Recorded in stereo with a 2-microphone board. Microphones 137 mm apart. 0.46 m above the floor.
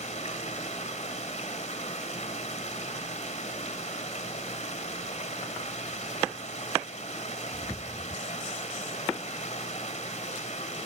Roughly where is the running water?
Left.